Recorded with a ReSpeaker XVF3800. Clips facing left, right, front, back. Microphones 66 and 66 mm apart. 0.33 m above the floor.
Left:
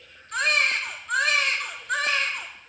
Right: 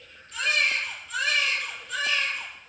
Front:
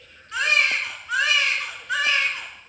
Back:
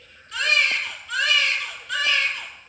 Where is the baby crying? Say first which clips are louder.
Left 2 dB, front 1 dB; 65° left, 1.7 m.